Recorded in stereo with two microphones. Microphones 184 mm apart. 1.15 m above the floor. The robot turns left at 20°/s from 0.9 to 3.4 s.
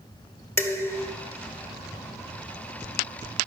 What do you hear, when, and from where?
0.6 s dishes clattering: 15° left (ahead or behind), 1.6 m; by 1.1 s 20° left (ahead or behind), 1.6 m